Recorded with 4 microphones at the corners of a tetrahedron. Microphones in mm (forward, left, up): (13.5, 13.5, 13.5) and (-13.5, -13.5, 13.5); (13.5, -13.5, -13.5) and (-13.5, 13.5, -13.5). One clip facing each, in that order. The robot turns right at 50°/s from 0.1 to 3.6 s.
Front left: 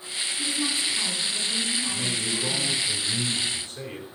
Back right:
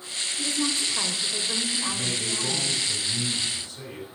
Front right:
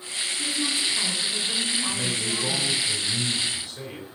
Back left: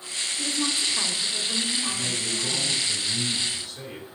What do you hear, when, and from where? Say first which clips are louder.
0.4 s a woman speaking: back right 1 dB, even; 175° right, 2 m; by 2.8 s 60° right, 2 m
1.9 s a man speaking: front left 1 dB, front right 2 dB; 40° right, 3.5 m; by 4.1 s 45° left, 3.5 m